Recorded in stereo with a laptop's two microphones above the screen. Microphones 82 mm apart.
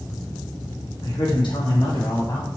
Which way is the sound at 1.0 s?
85° left.